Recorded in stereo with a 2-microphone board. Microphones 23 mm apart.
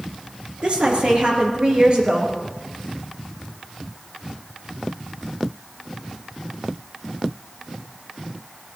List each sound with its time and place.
0.6 s a woman speaking: 40° right (ahead or behind), 3.5 m; by 2.3 s 35° right (ahead or behind), 4.5 m